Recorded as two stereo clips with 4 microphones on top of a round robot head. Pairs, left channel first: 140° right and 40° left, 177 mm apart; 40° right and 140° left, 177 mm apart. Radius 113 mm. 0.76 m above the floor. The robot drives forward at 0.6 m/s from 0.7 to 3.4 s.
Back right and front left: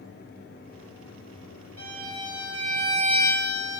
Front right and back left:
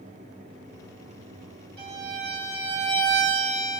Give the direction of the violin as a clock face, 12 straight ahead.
9 o'clock.